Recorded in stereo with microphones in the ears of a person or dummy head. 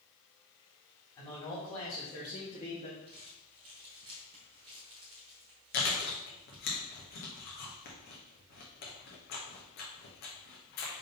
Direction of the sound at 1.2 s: 25° left (ahead or behind).